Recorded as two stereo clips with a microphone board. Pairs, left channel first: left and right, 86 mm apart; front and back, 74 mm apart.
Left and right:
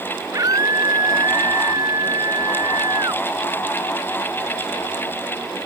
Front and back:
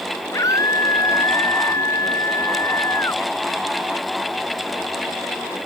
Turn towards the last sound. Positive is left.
turn(degrees=-50)